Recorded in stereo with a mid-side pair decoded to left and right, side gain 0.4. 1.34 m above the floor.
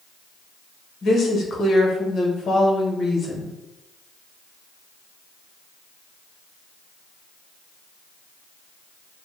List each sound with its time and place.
1.0 s a woman speaking: 60° left, 0.8 m